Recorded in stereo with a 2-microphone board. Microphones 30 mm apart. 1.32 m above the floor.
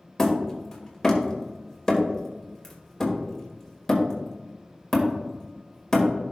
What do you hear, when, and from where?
0.2 s hammering: 20° left (ahead or behind), 2 m